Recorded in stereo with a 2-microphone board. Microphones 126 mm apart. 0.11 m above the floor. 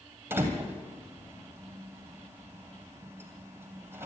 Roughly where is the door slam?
Centre.